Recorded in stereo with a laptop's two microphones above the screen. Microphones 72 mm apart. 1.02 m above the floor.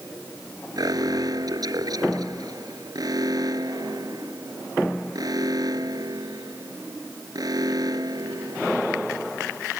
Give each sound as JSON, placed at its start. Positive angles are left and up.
{"t": 0.8, "sound": "an alarm", "side_deg": -60}